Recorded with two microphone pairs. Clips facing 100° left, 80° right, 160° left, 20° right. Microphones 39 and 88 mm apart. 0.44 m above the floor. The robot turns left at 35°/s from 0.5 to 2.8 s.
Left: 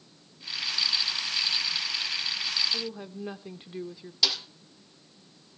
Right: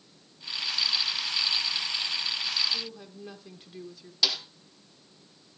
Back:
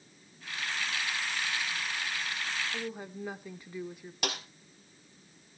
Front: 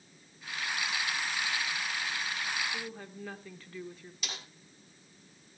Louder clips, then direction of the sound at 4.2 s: Even, back 9 dB; 170° right.